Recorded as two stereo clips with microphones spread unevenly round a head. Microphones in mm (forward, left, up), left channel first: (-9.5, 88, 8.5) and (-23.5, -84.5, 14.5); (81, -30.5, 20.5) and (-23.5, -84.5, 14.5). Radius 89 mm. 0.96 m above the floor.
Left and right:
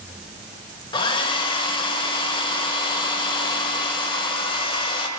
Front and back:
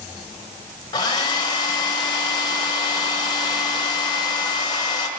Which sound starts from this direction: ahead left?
A hair dryer, at 0.9 s.